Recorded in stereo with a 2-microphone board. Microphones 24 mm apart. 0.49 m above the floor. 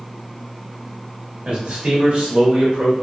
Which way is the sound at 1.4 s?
60° right (ahead or behind).